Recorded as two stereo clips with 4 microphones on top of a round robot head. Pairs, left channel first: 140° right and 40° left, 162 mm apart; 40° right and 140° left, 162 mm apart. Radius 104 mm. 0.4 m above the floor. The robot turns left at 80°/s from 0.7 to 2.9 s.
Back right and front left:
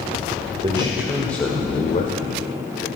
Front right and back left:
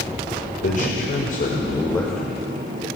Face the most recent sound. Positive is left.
turn(degrees=175)